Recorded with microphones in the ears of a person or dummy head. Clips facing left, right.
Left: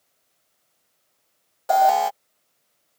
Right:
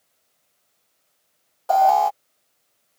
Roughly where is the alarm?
Centre.